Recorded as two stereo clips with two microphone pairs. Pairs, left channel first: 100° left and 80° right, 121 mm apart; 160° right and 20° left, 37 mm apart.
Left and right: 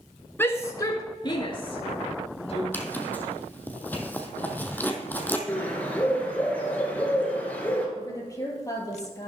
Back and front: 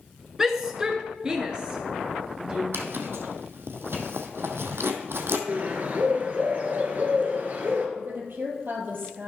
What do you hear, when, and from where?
0.4 s a shout: 70° left, 1.2 m; by 2.6 s 80° left, 2 m
2.7 s a zipper: 25° left, 1.5 m
5.5 s a bird: 25° left, 2.5 m
8.0 s a woman speaking: 40° left, 3 m